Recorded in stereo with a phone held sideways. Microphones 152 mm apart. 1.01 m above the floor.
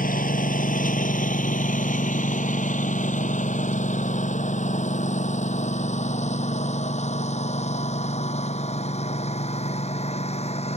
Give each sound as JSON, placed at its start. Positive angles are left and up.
{"t": 0.0, "sound": "a lawn mower", "side_deg": 65}